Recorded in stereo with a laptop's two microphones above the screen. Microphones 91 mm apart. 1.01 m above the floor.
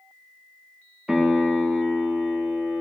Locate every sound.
1.1 s a piano: 5° right (ahead or behind), 0.6 m